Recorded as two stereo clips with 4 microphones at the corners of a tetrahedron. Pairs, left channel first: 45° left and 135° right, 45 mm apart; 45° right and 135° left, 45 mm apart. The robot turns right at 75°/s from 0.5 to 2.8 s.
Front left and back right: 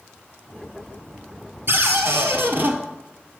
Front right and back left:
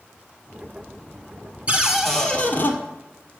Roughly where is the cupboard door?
Behind.